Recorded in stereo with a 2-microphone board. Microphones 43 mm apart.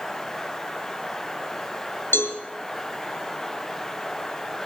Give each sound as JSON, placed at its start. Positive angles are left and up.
{"t": 2.1, "sound": "a cowbell", "side_deg": 60, "distance_m": 2.5}